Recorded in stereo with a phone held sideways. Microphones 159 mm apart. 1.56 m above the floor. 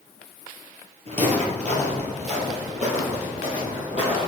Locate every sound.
1.1 s footsteps: 45° right (ahead or behind), 2 m; by 4.3 s 50° right (ahead or behind), 3.5 m